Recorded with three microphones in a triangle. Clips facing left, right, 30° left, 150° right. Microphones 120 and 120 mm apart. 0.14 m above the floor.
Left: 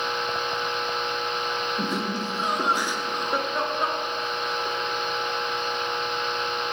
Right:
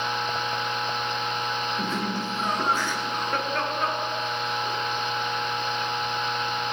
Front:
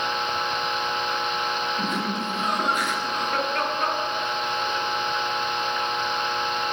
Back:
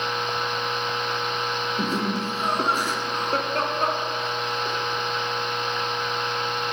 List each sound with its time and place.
1.8 s laughter: 165° left, 2.0 m